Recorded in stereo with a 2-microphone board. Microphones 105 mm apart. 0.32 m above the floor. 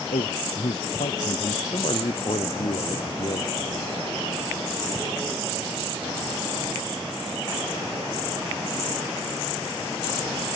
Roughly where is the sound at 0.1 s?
Left.